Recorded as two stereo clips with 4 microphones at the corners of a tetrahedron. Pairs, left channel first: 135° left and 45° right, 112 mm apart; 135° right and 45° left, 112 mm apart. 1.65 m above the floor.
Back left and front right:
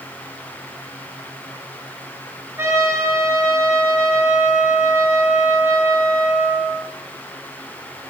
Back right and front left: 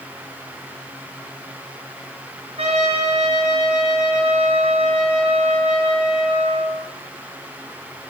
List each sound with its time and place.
2.6 s a trumpet: 25° left, 8.5 m